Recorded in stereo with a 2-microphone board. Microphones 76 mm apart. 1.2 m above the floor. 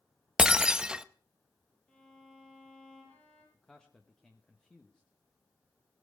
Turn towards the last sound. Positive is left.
turn(degrees=10)  # may be behind; listen again after turning